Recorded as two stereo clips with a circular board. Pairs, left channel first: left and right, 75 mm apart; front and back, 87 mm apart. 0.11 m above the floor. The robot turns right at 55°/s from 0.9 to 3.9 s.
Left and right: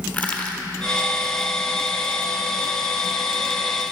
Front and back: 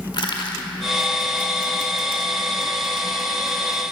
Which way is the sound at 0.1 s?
25° left.